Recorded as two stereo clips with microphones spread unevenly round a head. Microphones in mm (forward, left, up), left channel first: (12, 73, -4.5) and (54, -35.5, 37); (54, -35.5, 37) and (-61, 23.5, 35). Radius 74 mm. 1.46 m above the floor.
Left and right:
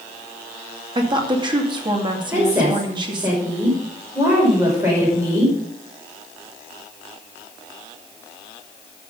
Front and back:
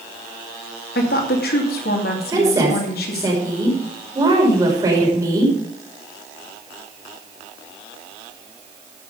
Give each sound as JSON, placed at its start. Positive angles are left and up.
{"t": 0.9, "sound": "a woman speaking", "azimuth_deg": -20, "distance_m": 2.5}
{"t": 2.3, "sound": "a woman speaking", "azimuth_deg": -140, "distance_m": 5.5}